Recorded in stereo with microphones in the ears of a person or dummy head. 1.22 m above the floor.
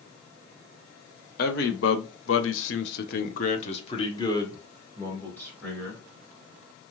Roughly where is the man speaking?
Left.